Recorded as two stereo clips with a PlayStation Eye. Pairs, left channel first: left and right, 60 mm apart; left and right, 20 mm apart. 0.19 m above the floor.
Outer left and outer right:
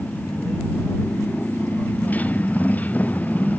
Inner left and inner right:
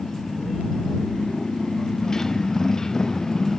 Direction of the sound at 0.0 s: 25° left (ahead or behind).